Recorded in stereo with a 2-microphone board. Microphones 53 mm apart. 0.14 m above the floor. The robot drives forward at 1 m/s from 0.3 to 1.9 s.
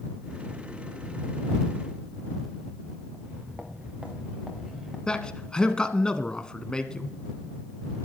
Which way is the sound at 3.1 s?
30° right (ahead or behind).